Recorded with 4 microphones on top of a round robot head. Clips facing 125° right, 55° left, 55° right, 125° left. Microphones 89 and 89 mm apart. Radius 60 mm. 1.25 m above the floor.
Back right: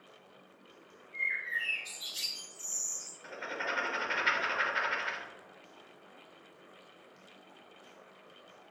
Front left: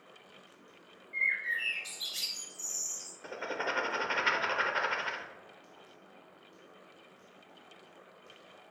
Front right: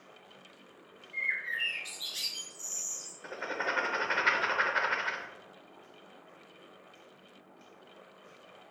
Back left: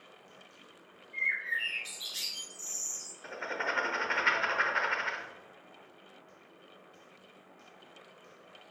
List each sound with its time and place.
1.1 s a bird: 60° left, 1.2 m
3.2 s writing: 25° left, 0.6 m